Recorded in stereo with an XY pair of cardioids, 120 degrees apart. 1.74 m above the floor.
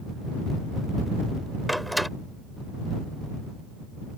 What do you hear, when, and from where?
1.7 s a door slam: straight ahead